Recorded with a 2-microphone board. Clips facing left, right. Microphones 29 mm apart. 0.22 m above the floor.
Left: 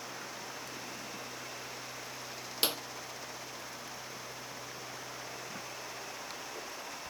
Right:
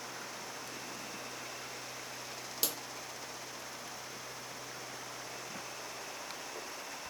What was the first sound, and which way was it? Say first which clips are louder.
A clap: left 6 dB; 40° left (ahead or behind).